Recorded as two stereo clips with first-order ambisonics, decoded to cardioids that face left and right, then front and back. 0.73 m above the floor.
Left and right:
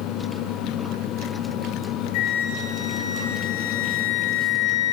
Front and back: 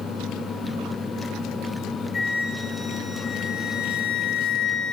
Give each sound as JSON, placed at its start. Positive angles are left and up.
{"t": 2.1, "sound": "a flute", "azimuth_deg": 75, "distance_m": 2.5}